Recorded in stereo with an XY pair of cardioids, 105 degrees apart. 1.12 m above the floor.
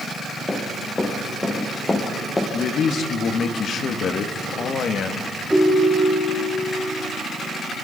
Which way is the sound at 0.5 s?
25° left.